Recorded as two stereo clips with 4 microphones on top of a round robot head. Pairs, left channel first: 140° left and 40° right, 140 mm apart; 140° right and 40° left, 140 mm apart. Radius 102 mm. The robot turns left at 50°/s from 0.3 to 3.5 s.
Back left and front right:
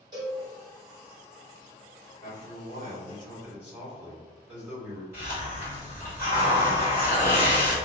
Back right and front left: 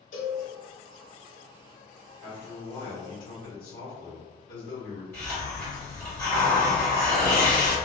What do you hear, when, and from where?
0.1 s a cowbell: 105° right, 1.1 m; by 0.4 s 110° right, 1.1 m
2.2 s a man speaking: 55° right, 1.3 m; by 5.0 s 120° right, 1.3 m
5.1 s a hiss: 90° right, 1.4 m